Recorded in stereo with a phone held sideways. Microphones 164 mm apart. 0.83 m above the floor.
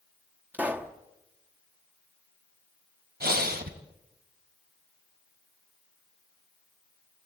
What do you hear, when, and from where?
0.5 s a pop: 10° right (ahead or behind), 1.7 m
3.2 s breathing: 70° right (ahead or behind), 2.5 m